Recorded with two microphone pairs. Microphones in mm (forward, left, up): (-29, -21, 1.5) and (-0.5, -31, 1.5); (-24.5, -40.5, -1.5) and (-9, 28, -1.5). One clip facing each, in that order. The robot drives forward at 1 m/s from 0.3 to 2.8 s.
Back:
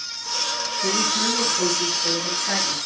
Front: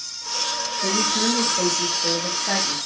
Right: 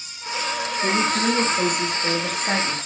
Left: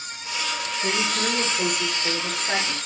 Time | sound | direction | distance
0.8 | a woman speaking | 55° right | 4.5 m